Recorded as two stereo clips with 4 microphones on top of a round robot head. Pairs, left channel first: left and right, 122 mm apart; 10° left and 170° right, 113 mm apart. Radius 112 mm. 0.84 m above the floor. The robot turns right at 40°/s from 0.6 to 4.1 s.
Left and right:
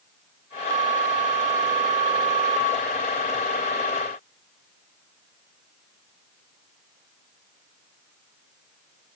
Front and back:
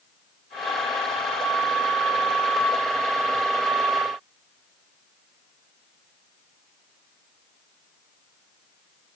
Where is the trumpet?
No trumpet in this recording.